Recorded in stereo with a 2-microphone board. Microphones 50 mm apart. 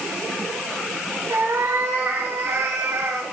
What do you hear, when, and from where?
1.3 s a cat meowing: 75° right (ahead or behind), 5.5 m; by 3.2 s 80° right, 5 m